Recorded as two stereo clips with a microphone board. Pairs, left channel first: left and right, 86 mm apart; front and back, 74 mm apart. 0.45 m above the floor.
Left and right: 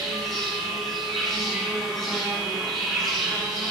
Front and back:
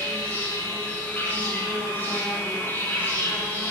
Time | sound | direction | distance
0.0 | an insect | 5° left | 1.9 m